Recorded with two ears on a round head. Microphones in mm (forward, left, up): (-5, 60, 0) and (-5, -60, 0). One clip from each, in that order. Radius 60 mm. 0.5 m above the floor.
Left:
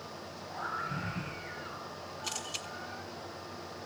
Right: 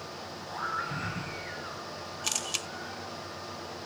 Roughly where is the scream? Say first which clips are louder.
Right 3 dB; right.